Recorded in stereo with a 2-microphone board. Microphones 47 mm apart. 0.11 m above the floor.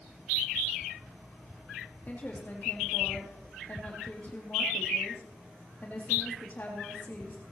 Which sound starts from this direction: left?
A woman speaking, at 2.1 s.